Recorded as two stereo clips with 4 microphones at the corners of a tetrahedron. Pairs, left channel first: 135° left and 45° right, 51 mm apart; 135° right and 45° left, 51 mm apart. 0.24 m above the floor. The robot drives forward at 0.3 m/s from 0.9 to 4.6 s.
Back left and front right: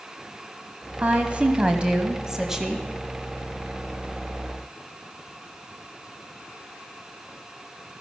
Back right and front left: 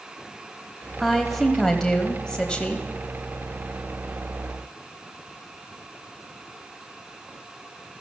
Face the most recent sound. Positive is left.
turn(degrees=-155)